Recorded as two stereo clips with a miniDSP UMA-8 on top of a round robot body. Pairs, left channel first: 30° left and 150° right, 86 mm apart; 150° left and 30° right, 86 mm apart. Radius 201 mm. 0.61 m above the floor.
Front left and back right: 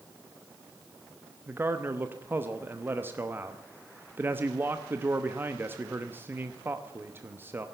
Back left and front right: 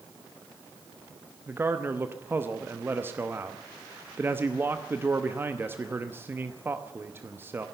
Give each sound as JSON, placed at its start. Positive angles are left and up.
{"t": 1.5, "sound": "a man speaking", "azimuth_deg": -90, "distance_m": 1.1}